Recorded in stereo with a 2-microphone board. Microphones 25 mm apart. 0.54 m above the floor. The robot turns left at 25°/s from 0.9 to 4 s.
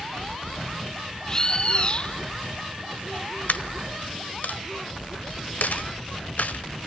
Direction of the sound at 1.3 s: 25° left (ahead or behind).